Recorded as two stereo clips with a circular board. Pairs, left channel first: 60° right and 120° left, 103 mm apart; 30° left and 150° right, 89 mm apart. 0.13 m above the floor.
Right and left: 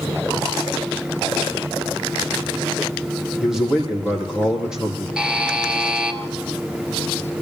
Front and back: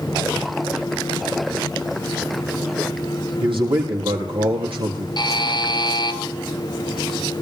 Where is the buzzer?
40° left, 2 m.